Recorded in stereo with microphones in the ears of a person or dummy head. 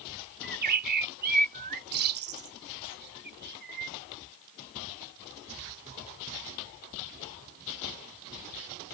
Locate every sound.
0.4 s a bird: 55° right (ahead or behind)